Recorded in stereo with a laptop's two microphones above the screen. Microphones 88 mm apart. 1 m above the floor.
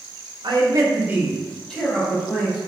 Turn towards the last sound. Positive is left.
turn(degrees=25)  # may be behind; listen again after turning